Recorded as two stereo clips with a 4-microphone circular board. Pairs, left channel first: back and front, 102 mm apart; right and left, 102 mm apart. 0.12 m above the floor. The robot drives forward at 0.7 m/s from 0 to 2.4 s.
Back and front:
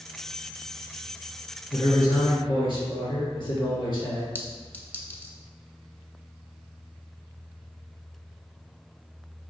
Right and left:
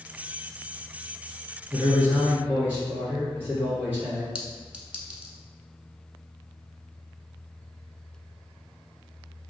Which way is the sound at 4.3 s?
150° left.